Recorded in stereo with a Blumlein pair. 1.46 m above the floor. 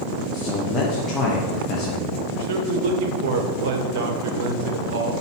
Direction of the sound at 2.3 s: 50° right.